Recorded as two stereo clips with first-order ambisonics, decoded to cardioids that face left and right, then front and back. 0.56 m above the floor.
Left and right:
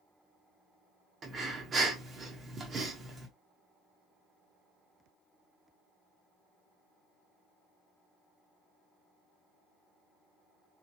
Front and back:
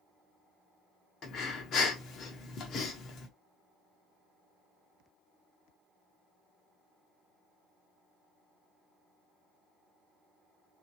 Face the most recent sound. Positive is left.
turn(degrees=-30)